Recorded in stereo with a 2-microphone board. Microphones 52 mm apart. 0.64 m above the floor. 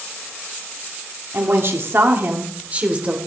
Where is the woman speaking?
55° right (ahead or behind), 1.7 m; by 3.2 s 25° right (ahead or behind), 3 m.